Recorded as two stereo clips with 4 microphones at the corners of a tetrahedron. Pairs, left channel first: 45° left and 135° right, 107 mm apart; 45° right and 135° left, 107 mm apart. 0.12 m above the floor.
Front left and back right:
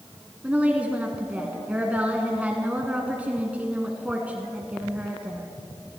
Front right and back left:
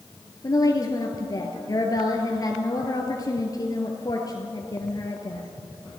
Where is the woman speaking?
65° right, 1.4 m.